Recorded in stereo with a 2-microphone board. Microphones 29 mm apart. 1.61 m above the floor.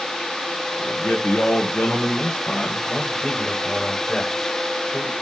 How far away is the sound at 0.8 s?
About 1.9 m.